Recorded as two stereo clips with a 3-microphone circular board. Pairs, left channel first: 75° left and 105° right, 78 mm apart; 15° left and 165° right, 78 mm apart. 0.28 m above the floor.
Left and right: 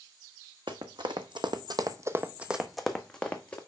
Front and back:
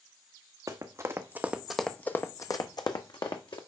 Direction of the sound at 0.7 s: 120° right.